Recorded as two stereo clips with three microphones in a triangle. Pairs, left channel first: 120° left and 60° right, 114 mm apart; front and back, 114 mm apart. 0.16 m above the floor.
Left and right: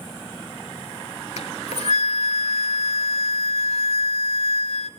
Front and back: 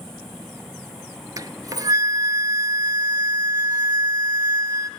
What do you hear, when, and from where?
1.4 s a flute: 125° left, 1.0 m